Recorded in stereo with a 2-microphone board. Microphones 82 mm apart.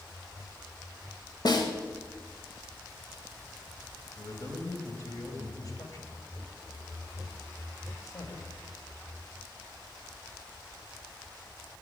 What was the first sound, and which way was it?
A snare drum, 60° left (ahead or behind).